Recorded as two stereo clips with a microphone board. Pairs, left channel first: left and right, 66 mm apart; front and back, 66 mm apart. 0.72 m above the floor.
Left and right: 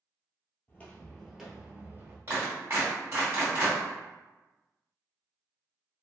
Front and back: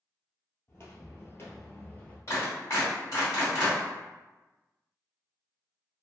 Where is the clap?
40° right, 1.9 m.